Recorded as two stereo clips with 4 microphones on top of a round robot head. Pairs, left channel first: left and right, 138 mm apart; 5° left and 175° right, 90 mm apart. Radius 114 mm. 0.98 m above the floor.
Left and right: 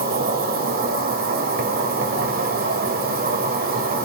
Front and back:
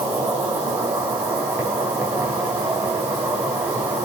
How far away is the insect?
About 2.5 m.